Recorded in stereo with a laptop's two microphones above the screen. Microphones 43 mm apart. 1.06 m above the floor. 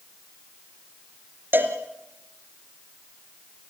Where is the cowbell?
55° right (ahead or behind), 2.5 m.